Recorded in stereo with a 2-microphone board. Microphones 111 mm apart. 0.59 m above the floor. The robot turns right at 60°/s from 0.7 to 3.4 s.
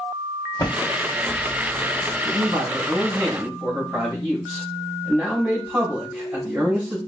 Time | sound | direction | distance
0.6 | typing on a keyboard | 25° left (ahead or behind) | 2 m
2.2 | a man speaking | 95° right | 4 m